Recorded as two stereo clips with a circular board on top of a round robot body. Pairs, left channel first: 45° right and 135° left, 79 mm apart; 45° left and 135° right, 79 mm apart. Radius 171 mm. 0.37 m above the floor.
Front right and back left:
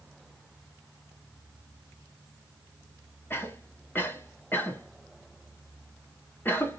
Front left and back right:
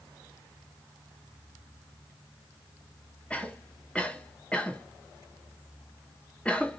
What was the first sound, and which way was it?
A cough, 15° right.